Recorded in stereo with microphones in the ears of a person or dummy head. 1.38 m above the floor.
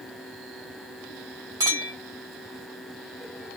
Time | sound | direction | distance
1.6 | a clink | 15° right (ahead or behind) | 0.9 m